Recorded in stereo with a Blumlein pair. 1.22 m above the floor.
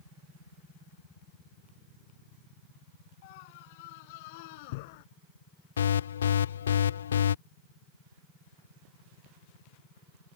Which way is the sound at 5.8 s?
65° left.